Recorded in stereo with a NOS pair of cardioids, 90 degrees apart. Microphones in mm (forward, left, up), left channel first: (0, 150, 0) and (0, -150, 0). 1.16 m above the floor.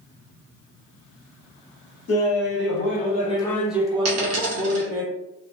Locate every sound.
2.1 s laughter: 55° left, 1.1 m; by 5.0 s 50° right, 1.0 m
4.0 s a dropped coin: 55° right, 1.3 m